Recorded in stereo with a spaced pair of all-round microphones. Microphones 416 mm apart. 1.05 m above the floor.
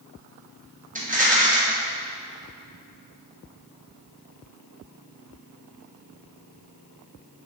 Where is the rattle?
20° right (ahead or behind), 0.6 m.